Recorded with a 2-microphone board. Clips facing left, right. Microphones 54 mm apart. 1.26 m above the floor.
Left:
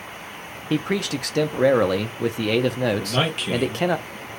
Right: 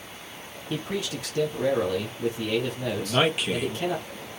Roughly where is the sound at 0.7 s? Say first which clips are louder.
Left 7 dB; left.